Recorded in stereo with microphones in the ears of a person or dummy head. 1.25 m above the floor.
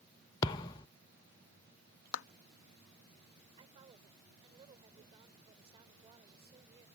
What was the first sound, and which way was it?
A thud, 15° left (ahead or behind).